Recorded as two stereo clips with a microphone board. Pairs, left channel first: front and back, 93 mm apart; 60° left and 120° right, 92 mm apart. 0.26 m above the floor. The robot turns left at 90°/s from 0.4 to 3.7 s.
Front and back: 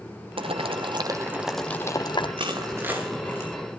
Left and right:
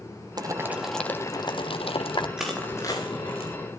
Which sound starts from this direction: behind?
Boiling, at 0.4 s.